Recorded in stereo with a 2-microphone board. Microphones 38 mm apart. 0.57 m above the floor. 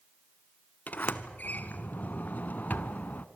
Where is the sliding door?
55° left (ahead or behind), 0.9 m.